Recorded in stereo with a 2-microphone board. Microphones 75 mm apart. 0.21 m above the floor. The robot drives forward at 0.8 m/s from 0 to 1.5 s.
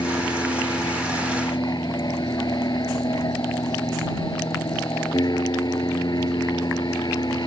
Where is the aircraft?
65° left (ahead or behind).